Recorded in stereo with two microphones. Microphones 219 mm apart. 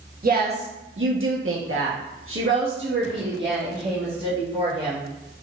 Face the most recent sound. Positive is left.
turn(degrees=-45)  # may be behind; listen again after turning